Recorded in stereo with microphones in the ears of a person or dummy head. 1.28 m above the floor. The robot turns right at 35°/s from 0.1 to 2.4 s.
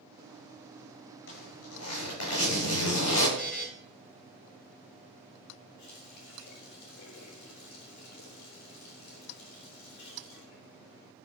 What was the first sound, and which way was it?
A zipper, 70° left.